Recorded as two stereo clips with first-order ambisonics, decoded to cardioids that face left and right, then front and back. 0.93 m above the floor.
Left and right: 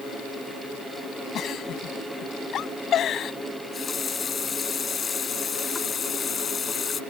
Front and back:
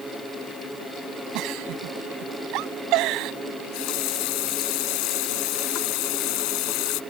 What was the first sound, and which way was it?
A giggle, 145° left.